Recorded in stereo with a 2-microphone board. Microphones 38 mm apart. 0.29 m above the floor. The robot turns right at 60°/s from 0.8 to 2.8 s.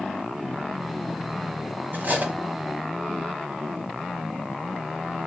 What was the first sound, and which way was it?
Cutlery clinking, 55° right (ahead or behind).